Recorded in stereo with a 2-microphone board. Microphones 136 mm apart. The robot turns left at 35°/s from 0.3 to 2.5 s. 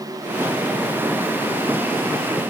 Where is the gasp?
I don't hear a gasp.